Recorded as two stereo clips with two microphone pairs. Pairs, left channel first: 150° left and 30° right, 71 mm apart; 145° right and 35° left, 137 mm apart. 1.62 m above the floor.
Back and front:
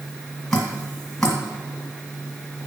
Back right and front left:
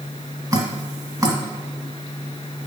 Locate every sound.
0.5 s dripping: 75° left, 1.7 m